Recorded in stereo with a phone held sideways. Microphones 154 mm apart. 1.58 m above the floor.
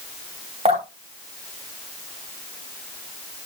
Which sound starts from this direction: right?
Dripping, at 0.7 s.